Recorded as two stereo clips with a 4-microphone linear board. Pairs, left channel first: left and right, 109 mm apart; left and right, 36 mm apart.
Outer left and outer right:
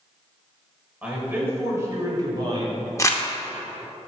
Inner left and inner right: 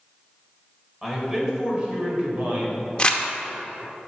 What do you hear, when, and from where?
1.0 s a man speaking: 10° right (ahead or behind), 2.5 m; by 2.9 s 50° right (ahead or behind), 2.5 m
3.0 s crumpling: 25° left (ahead or behind), 0.8 m